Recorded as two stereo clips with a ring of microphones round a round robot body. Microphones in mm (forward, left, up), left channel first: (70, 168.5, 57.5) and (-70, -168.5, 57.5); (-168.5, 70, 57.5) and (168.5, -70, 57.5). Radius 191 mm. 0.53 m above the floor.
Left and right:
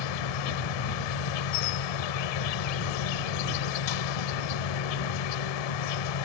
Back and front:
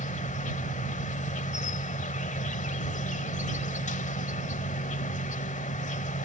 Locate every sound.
0.0 s an insect: 85° left